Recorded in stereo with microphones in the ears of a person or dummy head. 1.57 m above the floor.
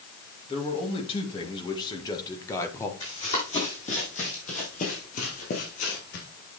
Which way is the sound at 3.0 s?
35° left (ahead or behind).